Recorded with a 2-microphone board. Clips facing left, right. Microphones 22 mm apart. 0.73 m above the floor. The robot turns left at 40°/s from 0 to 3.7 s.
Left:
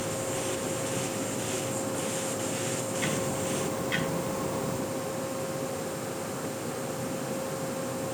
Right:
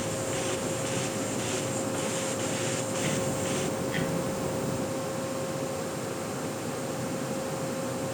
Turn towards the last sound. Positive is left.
turn(degrees=70)  # may be behind; listen again after turning